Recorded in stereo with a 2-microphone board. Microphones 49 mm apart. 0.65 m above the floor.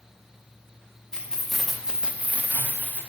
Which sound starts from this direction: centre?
Keys jangling, at 1.1 s.